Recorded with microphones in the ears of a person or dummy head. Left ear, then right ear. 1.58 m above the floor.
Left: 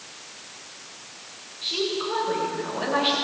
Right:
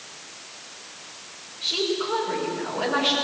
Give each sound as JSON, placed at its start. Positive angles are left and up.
{"t": 1.6, "sound": "a woman speaking", "side_deg": -5, "distance_m": 7.0}